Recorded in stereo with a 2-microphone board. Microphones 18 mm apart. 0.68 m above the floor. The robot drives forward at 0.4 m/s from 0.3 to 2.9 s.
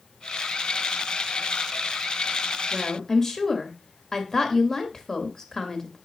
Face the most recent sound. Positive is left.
turn(degrees=30)  # may be behind; listen again after turning